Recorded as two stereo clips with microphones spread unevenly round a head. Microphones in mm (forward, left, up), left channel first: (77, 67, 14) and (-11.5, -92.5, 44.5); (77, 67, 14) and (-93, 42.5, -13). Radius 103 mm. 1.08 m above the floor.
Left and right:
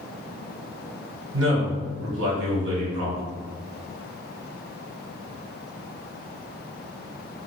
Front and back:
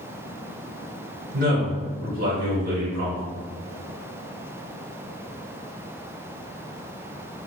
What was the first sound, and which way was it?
A man speaking, 140° right.